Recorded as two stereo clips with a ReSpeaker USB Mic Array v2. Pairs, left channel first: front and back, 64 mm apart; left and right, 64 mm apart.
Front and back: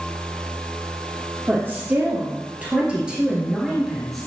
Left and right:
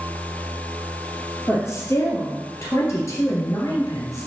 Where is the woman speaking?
125° left, 2.5 m; by 4.3 s 85° left, 1.8 m.